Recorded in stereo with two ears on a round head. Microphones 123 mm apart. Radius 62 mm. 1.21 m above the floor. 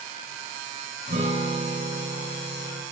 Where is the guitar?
50° right (ahead or behind), 4.5 m.